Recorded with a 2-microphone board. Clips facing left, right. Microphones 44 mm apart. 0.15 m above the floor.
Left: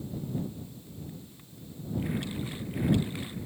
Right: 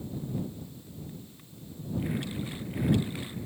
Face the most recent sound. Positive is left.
No sound to turn to.